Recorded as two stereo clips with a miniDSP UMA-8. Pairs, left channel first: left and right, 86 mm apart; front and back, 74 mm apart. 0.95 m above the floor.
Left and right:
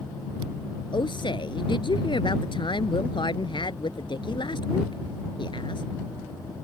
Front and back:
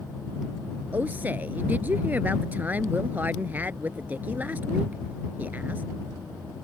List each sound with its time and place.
0.9 s a woman speaking: 115° left